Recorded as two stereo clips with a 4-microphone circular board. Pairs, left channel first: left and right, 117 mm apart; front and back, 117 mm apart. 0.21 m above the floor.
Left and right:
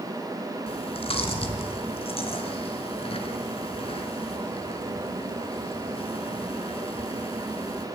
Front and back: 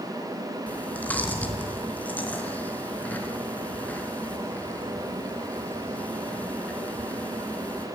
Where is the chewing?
75° left, 3 m.